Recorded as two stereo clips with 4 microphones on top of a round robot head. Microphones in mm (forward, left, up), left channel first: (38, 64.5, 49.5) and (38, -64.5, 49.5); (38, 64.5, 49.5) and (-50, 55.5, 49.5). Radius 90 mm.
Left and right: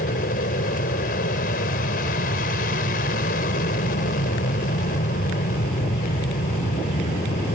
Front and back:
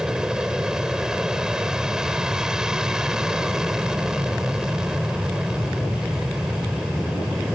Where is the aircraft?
105° left.